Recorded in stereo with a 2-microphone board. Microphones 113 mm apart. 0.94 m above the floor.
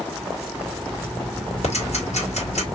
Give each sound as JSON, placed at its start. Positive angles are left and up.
{"t": 1.6, "sound": "ticking", "side_deg": 80, "distance_m": 2.5}